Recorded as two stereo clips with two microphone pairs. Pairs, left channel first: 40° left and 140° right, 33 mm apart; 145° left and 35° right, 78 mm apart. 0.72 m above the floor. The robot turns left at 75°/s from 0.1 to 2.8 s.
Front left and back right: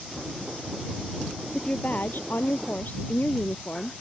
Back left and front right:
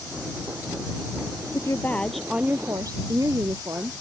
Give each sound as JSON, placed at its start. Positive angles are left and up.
{"t": 1.5, "sound": "a woman speaking", "azimuth_deg": 105}